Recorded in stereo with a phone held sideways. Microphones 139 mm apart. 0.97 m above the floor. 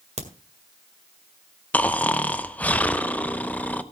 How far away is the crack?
About 1.7 m.